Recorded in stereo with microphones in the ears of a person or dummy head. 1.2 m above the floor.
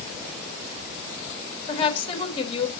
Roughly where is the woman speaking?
Left.